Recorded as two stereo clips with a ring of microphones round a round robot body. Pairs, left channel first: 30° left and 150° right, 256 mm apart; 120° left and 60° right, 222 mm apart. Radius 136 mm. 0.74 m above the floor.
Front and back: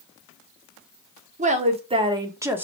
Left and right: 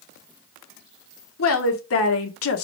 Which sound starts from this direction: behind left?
A woman speaking, at 1.4 s.